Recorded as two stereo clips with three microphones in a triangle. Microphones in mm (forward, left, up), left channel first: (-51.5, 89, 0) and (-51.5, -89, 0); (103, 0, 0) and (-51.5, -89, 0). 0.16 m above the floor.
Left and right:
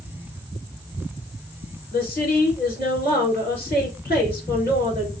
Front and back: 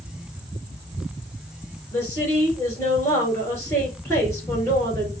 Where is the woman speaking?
105° left, 2.5 m.